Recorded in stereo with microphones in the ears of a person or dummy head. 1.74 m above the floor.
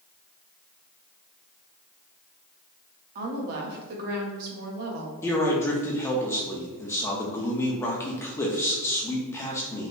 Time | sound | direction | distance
3.1 | a woman speaking | 50° right (ahead or behind) | 0.8 m
5.2 | a man speaking | 15° left (ahead or behind) | 0.6 m